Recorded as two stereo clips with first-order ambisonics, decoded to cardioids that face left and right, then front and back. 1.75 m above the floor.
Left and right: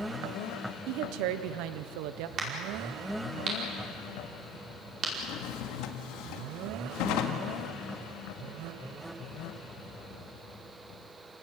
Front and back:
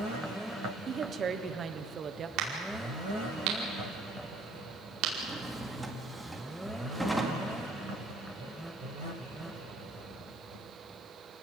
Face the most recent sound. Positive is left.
turn(degrees=90)